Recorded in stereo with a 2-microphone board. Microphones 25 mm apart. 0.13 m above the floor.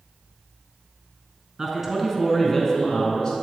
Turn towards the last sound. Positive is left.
turn(degrees=35)  # may be behind; listen again after turning